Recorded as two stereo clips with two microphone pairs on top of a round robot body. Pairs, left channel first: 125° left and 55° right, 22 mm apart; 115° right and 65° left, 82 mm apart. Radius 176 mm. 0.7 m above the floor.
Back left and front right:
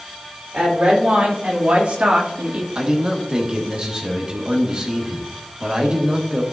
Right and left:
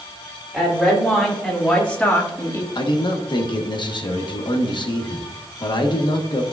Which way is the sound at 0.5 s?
25° right.